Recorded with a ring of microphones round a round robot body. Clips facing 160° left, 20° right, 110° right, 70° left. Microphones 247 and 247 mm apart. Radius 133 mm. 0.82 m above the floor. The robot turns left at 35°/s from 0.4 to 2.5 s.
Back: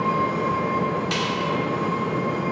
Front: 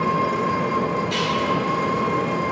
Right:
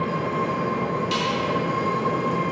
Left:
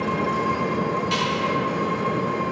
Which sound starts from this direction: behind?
A snare drum, at 1.1 s.